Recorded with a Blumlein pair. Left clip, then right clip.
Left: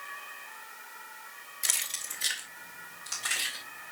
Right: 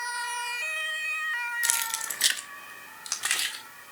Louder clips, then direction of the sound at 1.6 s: Right 4 dB; 5° right.